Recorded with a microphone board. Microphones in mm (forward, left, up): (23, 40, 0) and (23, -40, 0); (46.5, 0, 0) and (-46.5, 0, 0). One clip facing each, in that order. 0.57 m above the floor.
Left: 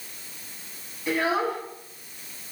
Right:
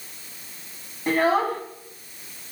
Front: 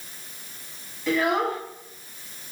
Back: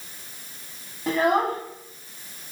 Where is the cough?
No cough in this recording.